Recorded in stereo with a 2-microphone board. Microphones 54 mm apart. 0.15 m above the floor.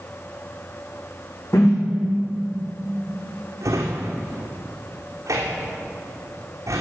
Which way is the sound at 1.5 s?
60° left (ahead or behind).